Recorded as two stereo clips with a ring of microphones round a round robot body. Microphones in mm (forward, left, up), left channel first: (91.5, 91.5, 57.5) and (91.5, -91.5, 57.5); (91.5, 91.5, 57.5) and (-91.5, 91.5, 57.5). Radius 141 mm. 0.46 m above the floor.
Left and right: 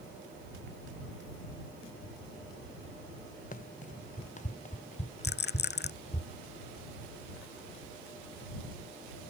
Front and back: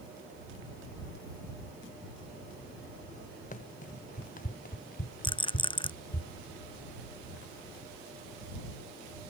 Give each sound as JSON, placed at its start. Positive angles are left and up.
{"t": 3.5, "sound": "running footsteps", "azimuth_deg": 45}
{"t": 5.2, "sound": "a rattle", "azimuth_deg": 65}